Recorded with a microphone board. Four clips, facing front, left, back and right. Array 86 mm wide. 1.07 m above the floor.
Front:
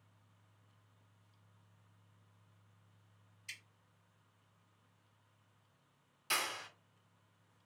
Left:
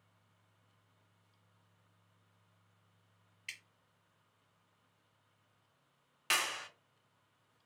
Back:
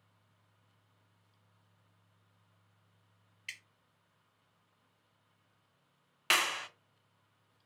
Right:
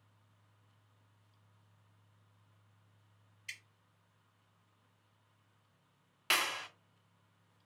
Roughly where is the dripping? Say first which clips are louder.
Right 1 dB, back 5 dB; behind left.